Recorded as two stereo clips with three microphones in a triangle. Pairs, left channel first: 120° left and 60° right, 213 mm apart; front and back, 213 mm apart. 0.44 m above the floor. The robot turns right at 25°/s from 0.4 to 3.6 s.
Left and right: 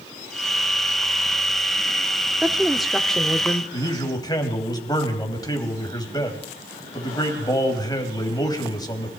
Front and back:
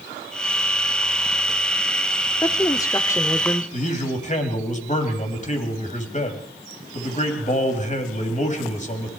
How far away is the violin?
I don't hear a violin.